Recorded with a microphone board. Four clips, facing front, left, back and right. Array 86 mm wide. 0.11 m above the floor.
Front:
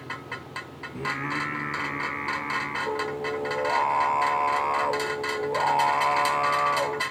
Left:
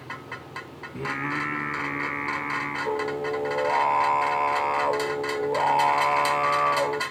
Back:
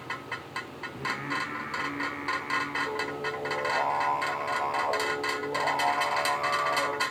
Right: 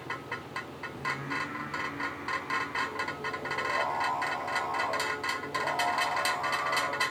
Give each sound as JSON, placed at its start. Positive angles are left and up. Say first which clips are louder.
{"t": 0.9, "sound": "singing", "louder": "left 6 dB, front 3 dB", "azimuth_deg": 70, "distance_m": 3.0}